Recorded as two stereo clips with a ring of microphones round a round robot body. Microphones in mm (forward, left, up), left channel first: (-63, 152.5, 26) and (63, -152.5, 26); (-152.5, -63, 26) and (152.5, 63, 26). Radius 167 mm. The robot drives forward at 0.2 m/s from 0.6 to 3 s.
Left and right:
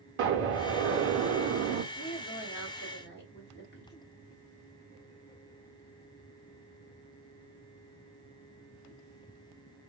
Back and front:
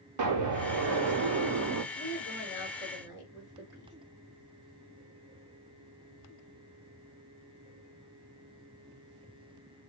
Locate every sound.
0.2 s an explosion: 10° right, 0.7 m; by 1.8 s 20° right, 0.5 m
1.9 s a woman speaking: 155° left, 1.2 m; by 3.9 s 160° left, 1.3 m